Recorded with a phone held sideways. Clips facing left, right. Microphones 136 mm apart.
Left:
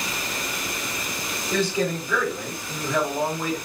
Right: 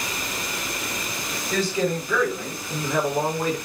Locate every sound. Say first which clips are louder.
1.5 s a man speaking: even; 5° left (ahead or behind), 1.5 m; by 3.6 s 40° right (ahead or behind), 1.4 m